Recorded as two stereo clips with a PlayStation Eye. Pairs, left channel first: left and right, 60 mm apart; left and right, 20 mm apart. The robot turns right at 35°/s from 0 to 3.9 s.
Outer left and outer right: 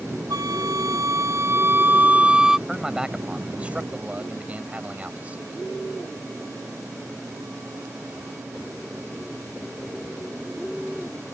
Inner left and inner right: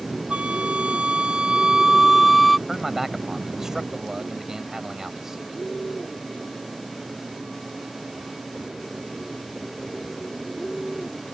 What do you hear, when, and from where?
0.3 s a flute: 90° right; by 2.6 s 10° right
2.7 s a man speaking: 165° right; by 5.6 s 125° right